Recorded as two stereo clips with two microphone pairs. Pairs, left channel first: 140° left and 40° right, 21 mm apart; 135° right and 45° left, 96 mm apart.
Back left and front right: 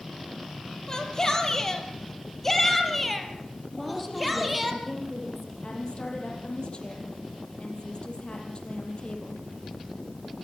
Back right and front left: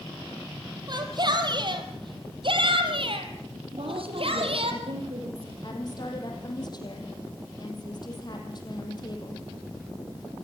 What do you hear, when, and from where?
0.9 s a shout: 85° left, 3.5 m; by 4.7 s 50° left, 3.5 m
3.7 s a woman speaking: 60° left, 6.5 m
5.6 s a woman speaking: straight behind, 5 m